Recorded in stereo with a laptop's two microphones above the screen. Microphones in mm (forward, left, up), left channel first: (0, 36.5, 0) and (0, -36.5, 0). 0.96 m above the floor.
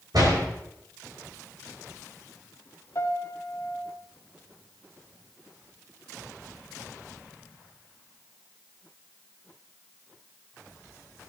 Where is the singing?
No singing in this recording.